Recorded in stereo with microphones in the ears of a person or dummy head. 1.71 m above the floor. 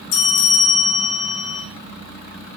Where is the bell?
65° left (ahead or behind), 0.6 m.